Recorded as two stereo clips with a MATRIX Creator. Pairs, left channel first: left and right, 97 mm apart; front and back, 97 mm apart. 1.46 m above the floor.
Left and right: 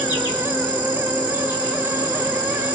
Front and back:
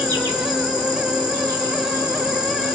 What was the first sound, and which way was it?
An insect, 135° left.